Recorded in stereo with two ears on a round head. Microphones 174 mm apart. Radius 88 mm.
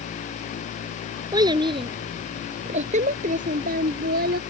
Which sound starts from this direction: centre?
A child speaking, at 1.3 s.